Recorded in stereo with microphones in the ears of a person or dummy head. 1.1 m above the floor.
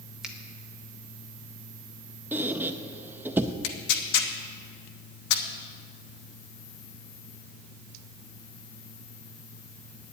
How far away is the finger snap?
About 0.7 m.